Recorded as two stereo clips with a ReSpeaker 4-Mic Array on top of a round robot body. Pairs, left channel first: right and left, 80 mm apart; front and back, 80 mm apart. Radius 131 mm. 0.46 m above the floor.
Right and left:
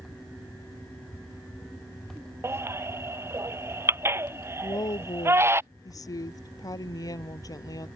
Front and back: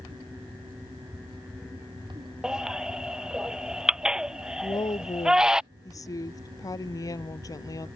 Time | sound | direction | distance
2.4 | a baby crying | 105° left | ?
4.6 | a woman speaking | 45° right | ?